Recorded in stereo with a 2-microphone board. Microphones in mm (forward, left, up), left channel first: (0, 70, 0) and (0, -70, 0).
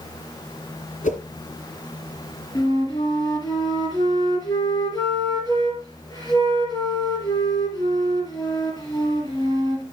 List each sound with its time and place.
1.0 s a whoosh: 75° left (ahead or behind), 3.5 m
2.5 s a flute: 30° left (ahead or behind), 4 m